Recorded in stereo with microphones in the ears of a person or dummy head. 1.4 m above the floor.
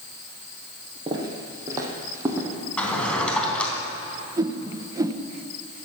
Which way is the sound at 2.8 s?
5° left (ahead or behind).